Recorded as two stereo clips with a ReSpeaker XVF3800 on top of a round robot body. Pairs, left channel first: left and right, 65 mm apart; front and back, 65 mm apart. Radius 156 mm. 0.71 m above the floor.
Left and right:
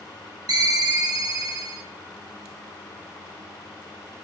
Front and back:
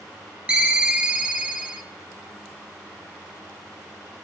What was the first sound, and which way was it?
A ringtone, 105° right.